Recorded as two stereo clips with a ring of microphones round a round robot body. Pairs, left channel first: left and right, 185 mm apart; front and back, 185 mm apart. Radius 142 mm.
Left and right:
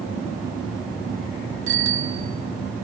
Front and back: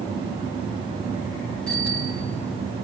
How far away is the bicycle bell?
About 4.5 m.